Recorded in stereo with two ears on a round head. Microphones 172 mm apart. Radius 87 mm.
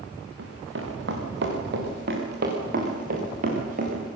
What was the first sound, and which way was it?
Running footsteps, 65° right (ahead or behind).